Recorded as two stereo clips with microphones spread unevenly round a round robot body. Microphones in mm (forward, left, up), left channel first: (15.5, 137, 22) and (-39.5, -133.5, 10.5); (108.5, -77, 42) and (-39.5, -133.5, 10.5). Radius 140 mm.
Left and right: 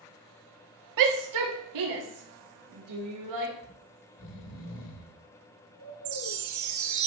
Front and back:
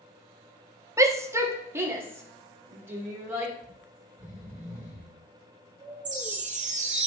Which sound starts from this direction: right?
A shout, at 1.0 s.